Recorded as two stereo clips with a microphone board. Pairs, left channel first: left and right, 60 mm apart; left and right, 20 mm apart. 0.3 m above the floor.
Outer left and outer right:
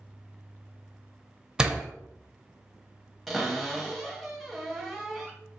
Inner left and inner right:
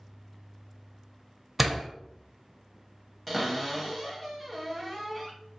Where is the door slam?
15° right (ahead or behind), 0.6 m.